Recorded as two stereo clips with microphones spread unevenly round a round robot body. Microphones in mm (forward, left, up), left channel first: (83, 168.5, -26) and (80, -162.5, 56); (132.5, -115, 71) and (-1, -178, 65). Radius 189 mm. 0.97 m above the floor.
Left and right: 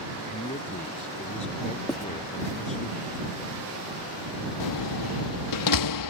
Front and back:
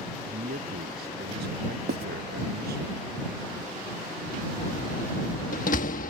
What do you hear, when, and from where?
0.2 s a man speaking: 165° left
1.9 s writing: straight behind
4.6 s a door slam: 70° left